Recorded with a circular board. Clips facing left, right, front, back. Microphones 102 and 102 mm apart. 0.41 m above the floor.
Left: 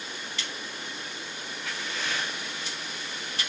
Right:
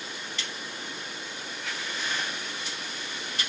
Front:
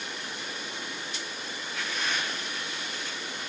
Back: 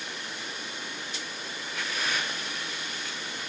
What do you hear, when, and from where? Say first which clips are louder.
1.6 s breathing: left 1 dB, even; 95° left, 1.6 m